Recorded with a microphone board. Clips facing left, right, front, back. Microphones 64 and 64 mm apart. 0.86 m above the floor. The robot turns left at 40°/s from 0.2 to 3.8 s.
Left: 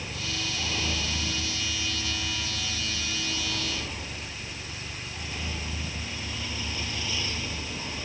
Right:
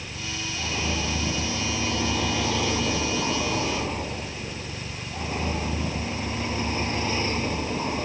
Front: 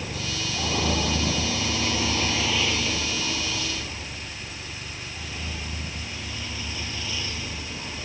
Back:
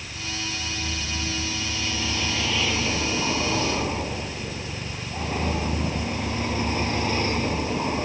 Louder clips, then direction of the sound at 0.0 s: Even, front 2 dB; 5° left.